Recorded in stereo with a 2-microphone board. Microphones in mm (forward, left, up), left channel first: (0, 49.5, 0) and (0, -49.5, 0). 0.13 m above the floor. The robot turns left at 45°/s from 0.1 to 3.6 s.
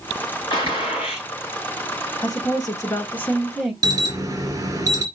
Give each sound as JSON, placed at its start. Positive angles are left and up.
{"t": 0.5, "sound": "a gunshot", "azimuth_deg": 125, "distance_m": 4.5}
{"t": 2.2, "sound": "a woman speaking", "azimuth_deg": 65, "distance_m": 1.6}
{"t": 3.8, "sound": "an alarm", "side_deg": -35, "distance_m": 1.9}